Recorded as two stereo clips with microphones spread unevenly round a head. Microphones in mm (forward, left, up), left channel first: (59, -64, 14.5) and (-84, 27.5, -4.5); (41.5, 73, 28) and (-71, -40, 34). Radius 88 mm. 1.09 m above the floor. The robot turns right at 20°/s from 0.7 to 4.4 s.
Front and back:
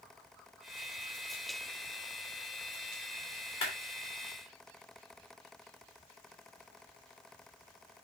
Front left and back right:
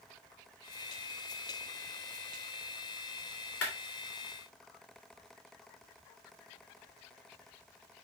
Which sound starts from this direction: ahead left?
A clap, at 3.6 s.